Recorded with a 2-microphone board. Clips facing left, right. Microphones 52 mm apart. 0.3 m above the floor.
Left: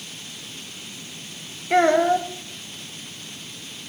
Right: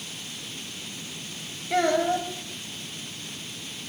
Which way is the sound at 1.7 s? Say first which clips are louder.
Left 6 dB; 45° left (ahead or behind).